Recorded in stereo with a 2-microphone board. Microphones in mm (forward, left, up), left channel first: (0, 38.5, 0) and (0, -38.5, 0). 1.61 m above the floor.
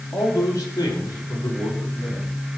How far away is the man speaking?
About 3.5 m.